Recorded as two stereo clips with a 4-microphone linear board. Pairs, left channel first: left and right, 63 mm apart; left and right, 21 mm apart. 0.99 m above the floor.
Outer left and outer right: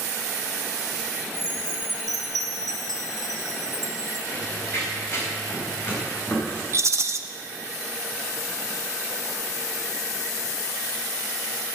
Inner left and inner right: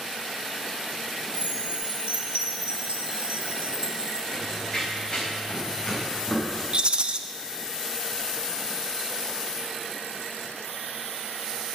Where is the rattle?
50° right (ahead or behind), 0.9 m.